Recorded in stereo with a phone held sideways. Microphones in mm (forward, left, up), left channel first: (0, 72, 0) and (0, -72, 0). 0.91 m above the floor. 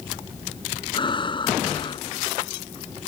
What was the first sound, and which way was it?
Breathing, 35° left (ahead or behind).